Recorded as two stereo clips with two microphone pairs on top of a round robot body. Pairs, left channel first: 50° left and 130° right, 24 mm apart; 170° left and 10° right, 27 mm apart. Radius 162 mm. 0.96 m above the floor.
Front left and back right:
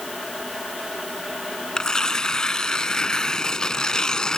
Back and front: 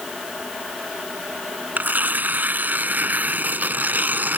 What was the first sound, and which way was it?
Tearing paper, 10° right.